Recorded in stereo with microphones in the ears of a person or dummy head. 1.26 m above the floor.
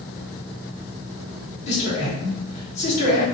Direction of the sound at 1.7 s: 35° left (ahead or behind).